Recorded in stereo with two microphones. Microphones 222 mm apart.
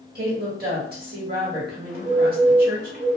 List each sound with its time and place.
0.1 s a woman speaking: 45° right (ahead or behind), 1.4 m
1.9 s a bird: 45° right (ahead or behind), 1.3 m